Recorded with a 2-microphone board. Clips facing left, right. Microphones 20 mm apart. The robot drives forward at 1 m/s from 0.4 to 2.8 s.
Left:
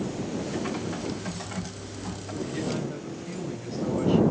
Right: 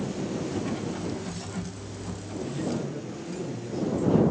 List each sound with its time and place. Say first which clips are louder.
0.5 s typing on a keyboard: even; 60° left (ahead or behind), 6.5 m; by 2.3 s 50° left (ahead or behind), 7.5 m
2.4 s a man speaking: even; 65° left (ahead or behind), 4 m